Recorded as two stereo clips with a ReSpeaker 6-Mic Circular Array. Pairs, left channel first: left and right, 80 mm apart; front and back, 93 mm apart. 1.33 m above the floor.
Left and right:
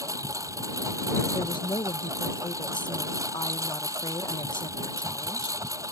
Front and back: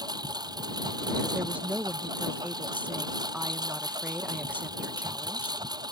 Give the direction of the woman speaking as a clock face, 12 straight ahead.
8 o'clock.